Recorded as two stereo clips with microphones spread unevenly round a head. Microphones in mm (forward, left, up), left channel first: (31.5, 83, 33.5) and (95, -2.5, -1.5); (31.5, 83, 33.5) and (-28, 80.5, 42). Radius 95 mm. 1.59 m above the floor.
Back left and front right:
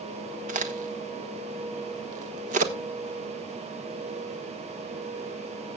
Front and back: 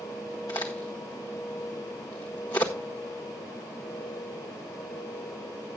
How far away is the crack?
About 1.1 m.